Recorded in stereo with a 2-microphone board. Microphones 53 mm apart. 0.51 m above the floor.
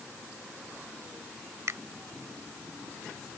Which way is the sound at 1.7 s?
65° right (ahead or behind).